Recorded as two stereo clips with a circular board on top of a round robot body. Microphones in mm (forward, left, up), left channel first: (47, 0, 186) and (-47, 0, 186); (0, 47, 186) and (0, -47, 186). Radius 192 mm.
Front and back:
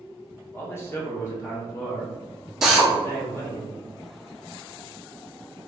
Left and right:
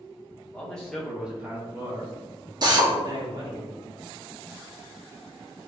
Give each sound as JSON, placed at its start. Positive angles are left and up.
{"t": 0.5, "sound": "a man speaking", "azimuth_deg": 35, "distance_m": 1.5}
{"t": 2.6, "sound": "a drill", "azimuth_deg": -95, "distance_m": 1.2}